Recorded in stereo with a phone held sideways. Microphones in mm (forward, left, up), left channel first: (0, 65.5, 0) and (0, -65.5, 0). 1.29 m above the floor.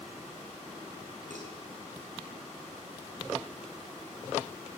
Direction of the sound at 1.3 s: 85° right.